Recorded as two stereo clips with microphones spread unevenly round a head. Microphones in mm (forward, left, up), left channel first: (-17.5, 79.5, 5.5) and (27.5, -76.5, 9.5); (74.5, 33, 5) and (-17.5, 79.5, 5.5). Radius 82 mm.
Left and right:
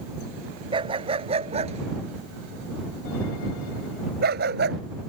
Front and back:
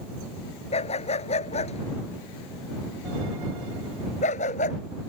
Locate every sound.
0.7 s a dog barking: 15° right; by 4.8 s 50° right